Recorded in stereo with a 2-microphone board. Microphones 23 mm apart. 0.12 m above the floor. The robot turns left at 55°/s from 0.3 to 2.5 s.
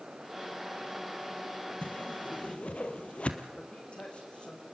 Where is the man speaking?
50° left (ahead or behind), 7 m.